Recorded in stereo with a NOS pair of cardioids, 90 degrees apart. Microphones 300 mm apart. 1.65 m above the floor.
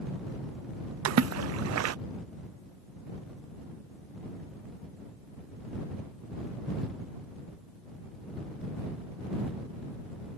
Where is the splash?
60° right.